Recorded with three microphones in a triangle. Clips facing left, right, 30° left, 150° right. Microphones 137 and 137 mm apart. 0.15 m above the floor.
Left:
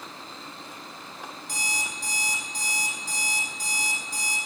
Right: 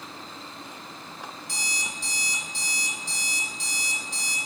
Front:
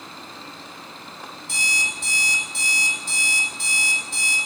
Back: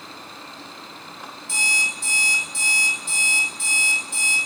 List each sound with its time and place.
1.5 s an alarm clock: 55° left, 2 m